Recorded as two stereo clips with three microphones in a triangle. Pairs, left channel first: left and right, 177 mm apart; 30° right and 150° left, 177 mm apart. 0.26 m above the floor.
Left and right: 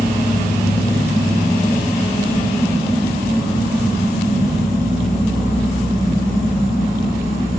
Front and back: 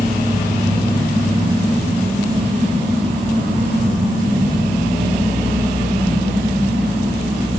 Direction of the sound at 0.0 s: 145° right.